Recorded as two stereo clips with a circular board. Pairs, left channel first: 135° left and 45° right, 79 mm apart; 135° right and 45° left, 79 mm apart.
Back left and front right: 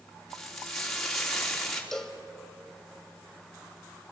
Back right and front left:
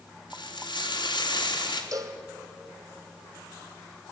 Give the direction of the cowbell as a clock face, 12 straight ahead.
10 o'clock.